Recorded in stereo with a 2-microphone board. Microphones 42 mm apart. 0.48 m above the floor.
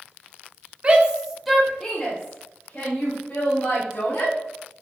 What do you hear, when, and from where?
0.8 s a shout: 30° right (ahead or behind), 0.8 m; by 4.3 s 40° left (ahead or behind), 2.5 m